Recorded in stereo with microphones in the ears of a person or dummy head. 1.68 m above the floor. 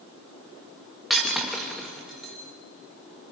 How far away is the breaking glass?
About 1.2 m.